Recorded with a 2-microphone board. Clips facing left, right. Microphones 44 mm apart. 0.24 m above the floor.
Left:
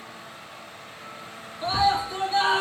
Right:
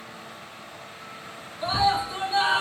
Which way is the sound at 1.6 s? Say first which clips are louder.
Left 1 dB; 10° right (ahead or behind).